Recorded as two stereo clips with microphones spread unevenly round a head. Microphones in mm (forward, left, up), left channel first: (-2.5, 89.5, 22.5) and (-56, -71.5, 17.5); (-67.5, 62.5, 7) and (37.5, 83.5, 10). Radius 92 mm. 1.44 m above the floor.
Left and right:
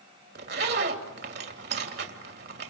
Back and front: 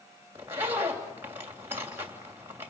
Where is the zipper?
70° right, 2.5 m.